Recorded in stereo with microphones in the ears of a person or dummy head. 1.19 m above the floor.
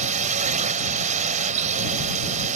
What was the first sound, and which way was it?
A drone, 35° right (ahead or behind).